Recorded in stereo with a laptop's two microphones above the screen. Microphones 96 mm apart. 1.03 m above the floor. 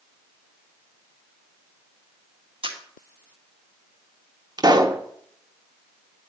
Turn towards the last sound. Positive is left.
turn(degrees=-45)  # may be behind; listen again after turning